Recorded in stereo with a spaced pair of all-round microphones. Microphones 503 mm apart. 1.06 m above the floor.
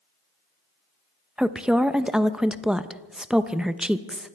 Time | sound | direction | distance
1.4 | a woman speaking | centre (ahead or behind) | 0.6 m